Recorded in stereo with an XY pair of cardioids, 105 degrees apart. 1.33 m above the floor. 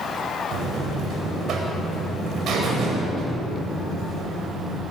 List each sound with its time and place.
0.5 s a buzzer: 65° right, 8 m